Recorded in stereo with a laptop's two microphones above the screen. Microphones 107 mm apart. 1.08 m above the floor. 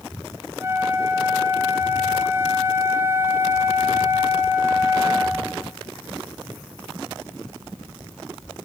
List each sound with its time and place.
0.6 s a flute: 25° right (ahead or behind), 0.8 m